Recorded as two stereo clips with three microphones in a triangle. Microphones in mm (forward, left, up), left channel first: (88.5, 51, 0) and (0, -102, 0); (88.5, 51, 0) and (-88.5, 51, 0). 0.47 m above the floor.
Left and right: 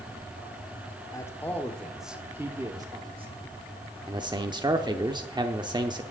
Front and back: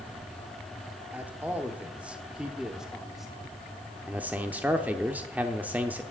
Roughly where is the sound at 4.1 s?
Right.